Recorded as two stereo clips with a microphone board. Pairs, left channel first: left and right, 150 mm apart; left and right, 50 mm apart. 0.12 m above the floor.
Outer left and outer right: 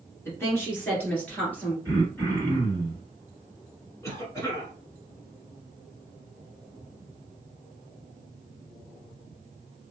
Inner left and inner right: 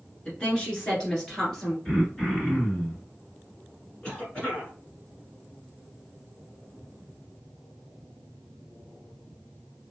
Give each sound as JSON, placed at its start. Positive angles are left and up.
{"t": 0.2, "sound": "a woman speaking", "side_deg": 20, "distance_m": 1.4}
{"t": 1.9, "sound": "throat clearing", "side_deg": 20, "distance_m": 2.0}
{"t": 4.0, "sound": "a cough", "side_deg": 20, "distance_m": 1.3}